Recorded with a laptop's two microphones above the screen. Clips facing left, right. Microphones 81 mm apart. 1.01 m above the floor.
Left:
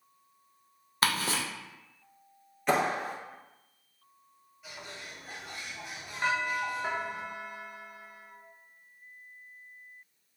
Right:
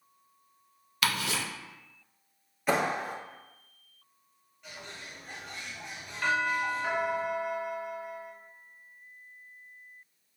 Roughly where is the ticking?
Left.